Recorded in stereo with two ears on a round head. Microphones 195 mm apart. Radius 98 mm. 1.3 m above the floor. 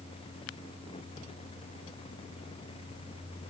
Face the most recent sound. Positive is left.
No sound to turn to.